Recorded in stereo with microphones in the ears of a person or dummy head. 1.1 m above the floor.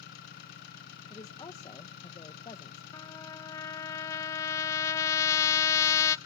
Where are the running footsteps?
No running footsteps in this recording.